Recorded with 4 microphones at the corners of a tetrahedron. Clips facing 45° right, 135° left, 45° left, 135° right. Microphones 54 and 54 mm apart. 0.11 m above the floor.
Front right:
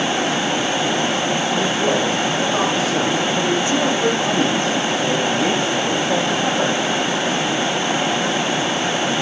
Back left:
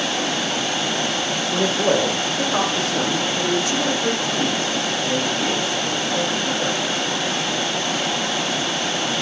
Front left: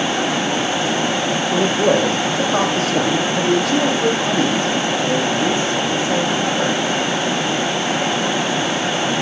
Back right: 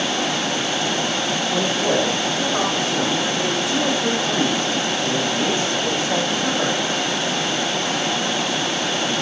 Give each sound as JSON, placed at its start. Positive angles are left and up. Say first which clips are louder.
{"t": 1.5, "sound": "a man speaking", "louder": "back left 3 dB, front left 5 dB", "azimuth_deg": 70, "distance_m": 4.5}